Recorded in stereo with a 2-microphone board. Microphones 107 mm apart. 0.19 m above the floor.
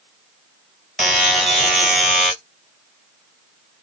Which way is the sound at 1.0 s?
Centre (ahead or behind).